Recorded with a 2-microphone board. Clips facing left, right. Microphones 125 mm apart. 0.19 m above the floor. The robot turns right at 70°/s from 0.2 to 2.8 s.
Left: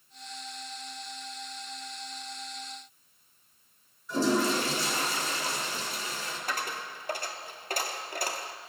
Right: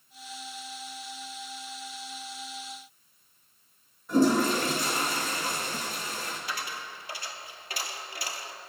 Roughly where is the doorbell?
I don't hear a doorbell.